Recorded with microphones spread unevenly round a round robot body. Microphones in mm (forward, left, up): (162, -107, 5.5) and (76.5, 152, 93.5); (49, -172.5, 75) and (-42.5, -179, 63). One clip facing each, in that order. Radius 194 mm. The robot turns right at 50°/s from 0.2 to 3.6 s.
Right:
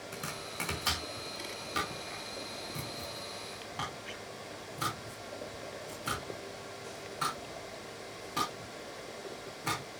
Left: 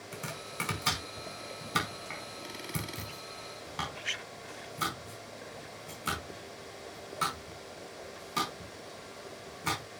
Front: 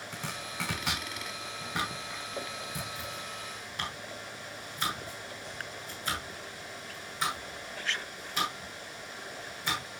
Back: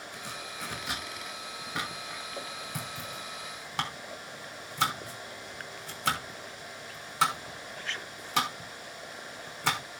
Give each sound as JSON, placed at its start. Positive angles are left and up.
{"t": 0.1, "sound": "chopping", "azimuth_deg": 15, "distance_m": 5.5}